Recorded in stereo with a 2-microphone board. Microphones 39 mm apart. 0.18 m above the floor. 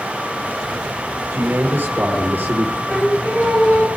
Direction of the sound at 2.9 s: 30° left (ahead or behind).